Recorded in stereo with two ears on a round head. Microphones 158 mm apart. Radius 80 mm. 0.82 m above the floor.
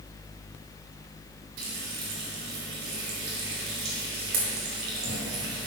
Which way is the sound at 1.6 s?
80° right.